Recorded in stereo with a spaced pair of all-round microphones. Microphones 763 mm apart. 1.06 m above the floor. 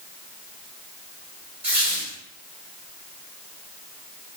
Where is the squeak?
45° right (ahead or behind), 1.4 m.